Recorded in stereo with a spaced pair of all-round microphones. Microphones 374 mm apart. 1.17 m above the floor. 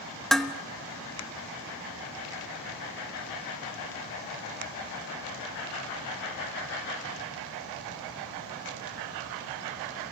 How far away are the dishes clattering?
About 0.8 m.